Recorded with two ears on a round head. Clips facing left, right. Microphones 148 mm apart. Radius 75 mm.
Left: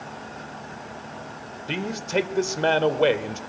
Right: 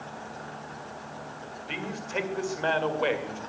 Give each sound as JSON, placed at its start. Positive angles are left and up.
{"t": 1.7, "sound": "a man speaking", "side_deg": 45, "distance_m": 1.8}